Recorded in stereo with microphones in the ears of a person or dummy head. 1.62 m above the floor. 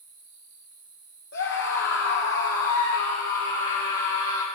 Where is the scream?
80° left, 2 m; by 4.5 s 40° left (ahead or behind), 2.5 m.